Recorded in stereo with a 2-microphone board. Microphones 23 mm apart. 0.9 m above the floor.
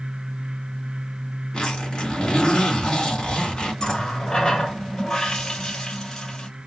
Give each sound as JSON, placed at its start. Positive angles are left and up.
{"t": 1.5, "sound": "a zipper", "side_deg": 30, "distance_m": 2.5}
{"t": 3.8, "sound": "a running tap", "side_deg": 25, "distance_m": 3.0}